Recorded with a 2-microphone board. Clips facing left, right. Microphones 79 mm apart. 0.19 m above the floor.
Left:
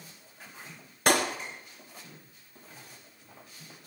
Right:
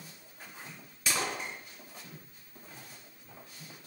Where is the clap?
60° left (ahead or behind), 3.5 m.